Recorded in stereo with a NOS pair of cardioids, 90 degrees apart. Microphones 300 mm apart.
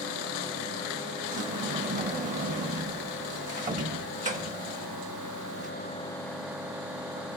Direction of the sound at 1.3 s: 25° right.